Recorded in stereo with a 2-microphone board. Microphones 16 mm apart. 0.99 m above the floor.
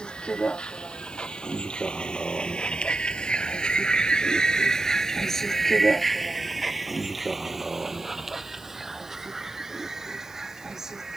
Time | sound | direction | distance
0.0 | a vehicle | 75° left (ahead or behind) | ?